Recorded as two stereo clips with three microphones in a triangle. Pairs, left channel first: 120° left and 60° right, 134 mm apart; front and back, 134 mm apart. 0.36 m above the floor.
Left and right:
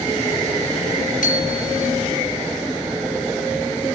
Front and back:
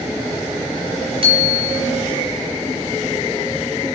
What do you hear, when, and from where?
1.2 s a bicycle bell: 130° left, 5.5 m